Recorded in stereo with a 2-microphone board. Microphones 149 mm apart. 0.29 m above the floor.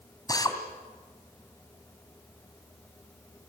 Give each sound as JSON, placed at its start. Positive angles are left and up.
{"t": 0.3, "sound": "a drill", "side_deg": 25, "distance_m": 2.5}